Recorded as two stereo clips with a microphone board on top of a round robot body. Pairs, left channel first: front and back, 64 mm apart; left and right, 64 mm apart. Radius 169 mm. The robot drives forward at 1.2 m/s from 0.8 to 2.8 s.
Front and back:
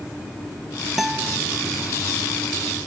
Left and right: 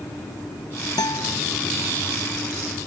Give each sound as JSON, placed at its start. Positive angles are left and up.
{"t": 1.0, "sound": "a guitar", "azimuth_deg": 95}